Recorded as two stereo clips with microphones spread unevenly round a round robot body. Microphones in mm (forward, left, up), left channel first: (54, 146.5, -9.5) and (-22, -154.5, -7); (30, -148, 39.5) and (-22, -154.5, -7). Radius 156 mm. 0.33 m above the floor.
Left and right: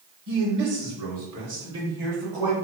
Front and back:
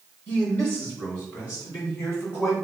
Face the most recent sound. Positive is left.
turn(degrees=-20)